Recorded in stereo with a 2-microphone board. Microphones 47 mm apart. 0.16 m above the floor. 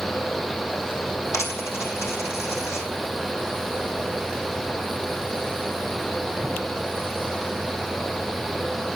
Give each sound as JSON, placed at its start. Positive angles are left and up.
{"t": 1.3, "sound": "a dropped coin", "side_deg": 75, "distance_m": 3.0}